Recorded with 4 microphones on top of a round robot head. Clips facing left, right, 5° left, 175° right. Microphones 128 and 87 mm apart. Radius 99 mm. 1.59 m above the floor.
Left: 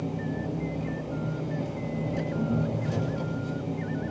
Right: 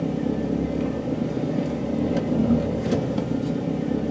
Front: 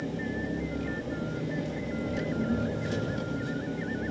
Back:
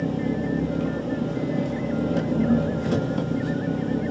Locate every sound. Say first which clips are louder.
0.0 s an engine running: right 7 dB, back 8 dB; 125° right, 3 m